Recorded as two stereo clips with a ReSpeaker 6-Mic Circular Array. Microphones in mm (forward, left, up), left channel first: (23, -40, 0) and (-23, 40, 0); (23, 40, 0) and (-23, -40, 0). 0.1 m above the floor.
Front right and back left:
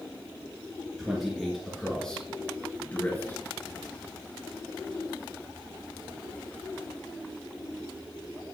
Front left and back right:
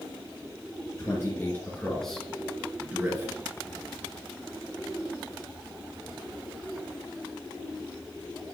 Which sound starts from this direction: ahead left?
A man speaking, at 1.0 s.